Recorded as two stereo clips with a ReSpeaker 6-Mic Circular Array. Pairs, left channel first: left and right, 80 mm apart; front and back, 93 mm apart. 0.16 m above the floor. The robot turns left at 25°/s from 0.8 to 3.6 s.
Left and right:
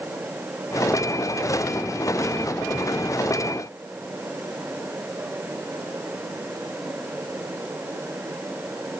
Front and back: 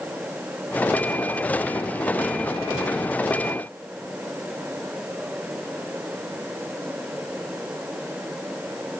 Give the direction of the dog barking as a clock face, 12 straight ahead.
No dog barking in this recording.